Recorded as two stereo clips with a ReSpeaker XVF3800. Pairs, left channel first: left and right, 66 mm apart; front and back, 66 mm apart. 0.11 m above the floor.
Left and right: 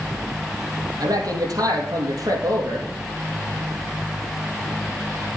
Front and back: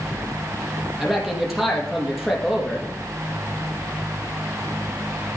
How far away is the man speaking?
About 3.5 m.